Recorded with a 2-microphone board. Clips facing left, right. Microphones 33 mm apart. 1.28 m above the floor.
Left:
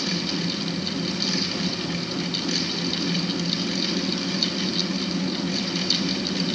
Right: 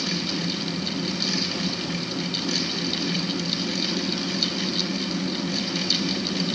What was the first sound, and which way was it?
Only background noise.